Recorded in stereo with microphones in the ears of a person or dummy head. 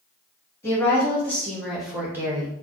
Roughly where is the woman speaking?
Centre.